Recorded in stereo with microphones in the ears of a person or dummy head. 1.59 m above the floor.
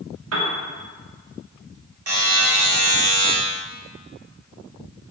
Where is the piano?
70° right (ahead or behind), 0.6 m.